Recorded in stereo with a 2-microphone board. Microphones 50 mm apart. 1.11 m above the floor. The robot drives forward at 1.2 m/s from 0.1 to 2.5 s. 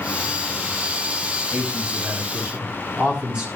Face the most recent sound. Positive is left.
turn(degrees=-20)  # may be behind; listen again after turning